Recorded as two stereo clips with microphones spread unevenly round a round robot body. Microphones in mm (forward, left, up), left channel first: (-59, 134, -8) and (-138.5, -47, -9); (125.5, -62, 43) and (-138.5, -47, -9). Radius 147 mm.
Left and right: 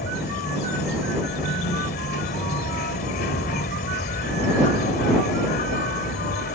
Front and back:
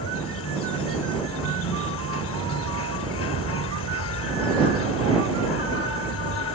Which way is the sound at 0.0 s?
35° left.